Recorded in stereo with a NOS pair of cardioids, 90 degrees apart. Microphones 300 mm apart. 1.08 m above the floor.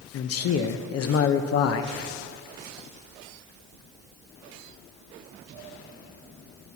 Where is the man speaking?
50° left, 0.5 m.